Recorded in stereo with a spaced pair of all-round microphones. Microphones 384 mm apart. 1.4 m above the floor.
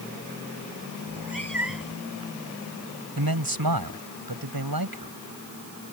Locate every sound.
1.1 s a cat meowing: 55° left (ahead or behind)
3.2 s a man speaking: 65° right (ahead or behind)